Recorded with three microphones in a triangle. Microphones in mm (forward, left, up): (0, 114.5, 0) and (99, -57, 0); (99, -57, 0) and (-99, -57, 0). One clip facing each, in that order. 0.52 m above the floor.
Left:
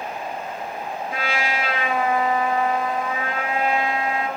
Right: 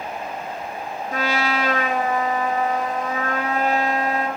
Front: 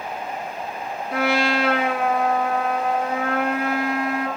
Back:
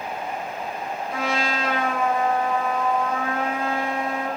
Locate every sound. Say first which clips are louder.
1.1 s a trumpet: right 4 dB, front 6 dB; 15° right, 1.9 m